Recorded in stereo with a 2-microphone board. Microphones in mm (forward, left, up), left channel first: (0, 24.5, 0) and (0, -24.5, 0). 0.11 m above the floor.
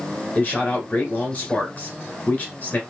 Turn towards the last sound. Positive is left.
turn(degrees=35)  # may be behind; listen again after turning